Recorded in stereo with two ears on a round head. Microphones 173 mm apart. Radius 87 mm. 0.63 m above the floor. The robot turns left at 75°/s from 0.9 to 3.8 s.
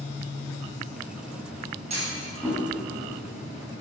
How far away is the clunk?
About 4 m.